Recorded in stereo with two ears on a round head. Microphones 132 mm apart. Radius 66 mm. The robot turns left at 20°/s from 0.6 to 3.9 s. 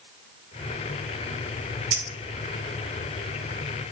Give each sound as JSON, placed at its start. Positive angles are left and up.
{"t": 1.9, "sound": "a clink", "side_deg": -50, "distance_m": 0.7}